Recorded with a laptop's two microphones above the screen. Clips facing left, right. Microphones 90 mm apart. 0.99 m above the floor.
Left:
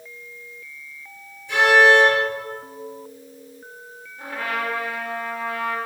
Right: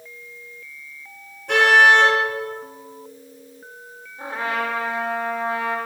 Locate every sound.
1.5 s a car horn: 55° right (ahead or behind), 8.5 m
4.2 s a trumpet: 25° right (ahead or behind), 4 m